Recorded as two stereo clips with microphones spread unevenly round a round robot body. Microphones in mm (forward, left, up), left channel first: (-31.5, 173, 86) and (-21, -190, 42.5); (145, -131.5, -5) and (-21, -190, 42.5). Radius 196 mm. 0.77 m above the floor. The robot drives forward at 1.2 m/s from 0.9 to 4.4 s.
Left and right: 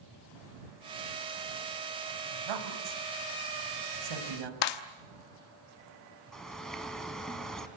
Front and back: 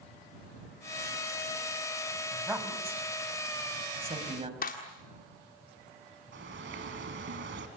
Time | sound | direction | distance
2.3 | a woman speaking | 75° right | 4.5 m
4.6 | a clap | 65° left | 1.2 m
6.3 | a bird | straight behind | 1.9 m